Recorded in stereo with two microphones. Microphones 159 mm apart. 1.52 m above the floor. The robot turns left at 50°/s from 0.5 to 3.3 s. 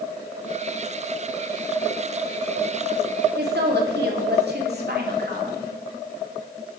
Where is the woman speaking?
75° right (ahead or behind), 3 m.